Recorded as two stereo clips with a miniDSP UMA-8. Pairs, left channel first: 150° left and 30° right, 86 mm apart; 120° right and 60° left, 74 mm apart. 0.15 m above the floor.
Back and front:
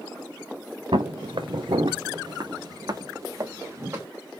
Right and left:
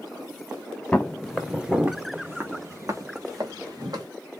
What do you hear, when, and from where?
0.9 s footsteps: 40° right, 1.1 m; by 4.1 s 30° left, 2 m